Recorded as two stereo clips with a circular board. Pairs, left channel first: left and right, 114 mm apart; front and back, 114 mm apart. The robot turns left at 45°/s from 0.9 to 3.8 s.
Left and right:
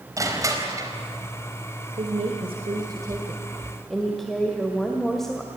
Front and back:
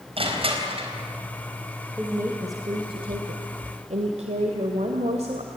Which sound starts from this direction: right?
A woman speaking, at 2.0 s.